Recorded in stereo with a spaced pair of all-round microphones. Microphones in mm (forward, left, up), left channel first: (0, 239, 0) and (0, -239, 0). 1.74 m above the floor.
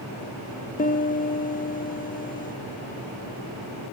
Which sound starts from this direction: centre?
A piano, at 0.8 s.